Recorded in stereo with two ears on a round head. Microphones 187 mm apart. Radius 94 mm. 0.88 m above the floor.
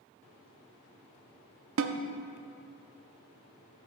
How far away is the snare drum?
About 0.6 m.